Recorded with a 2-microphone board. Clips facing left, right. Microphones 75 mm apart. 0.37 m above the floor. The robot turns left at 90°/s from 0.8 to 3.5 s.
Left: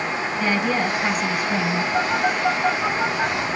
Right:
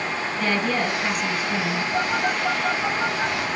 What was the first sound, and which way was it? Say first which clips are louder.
A woman speaking: left 1 dB; 170° left.